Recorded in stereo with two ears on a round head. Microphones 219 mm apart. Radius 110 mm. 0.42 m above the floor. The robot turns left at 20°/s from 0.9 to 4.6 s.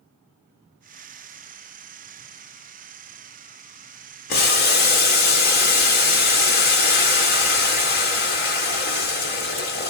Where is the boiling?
40° left (ahead or behind), 1.5 m.